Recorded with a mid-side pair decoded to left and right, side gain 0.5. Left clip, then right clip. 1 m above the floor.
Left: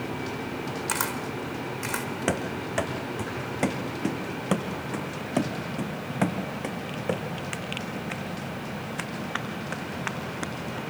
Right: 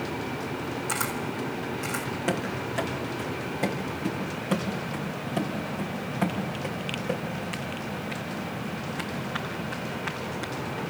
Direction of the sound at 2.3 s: 45° left.